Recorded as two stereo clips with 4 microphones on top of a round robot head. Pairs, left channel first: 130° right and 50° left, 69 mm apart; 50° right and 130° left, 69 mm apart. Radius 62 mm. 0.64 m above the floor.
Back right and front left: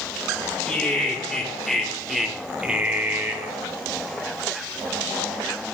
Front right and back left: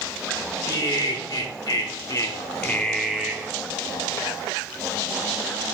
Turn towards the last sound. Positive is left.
turn(degrees=80)